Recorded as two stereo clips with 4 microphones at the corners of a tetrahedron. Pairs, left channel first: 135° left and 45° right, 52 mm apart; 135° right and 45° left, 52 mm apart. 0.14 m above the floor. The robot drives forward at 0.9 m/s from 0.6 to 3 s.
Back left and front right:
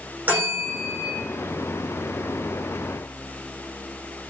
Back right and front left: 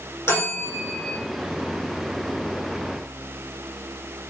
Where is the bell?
100° right, 7.5 m; by 1.2 s 105° right, 7.5 m.